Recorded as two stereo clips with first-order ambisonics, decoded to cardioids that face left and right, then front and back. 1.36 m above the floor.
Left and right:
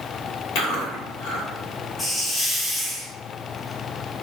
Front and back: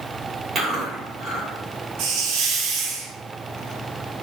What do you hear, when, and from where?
0.6 s chewing: 110° left, 2.0 m
2.0 s a hiss: 170° left, 0.7 m